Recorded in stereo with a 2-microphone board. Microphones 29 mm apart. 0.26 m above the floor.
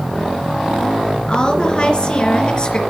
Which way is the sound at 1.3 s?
30° left (ahead or behind).